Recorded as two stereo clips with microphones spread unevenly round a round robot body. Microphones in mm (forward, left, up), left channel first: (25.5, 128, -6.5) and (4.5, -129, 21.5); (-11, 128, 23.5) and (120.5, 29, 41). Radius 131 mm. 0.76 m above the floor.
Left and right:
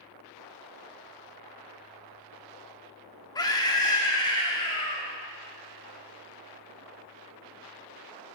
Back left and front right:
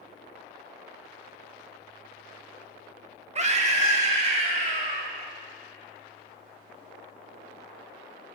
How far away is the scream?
About 1.4 m.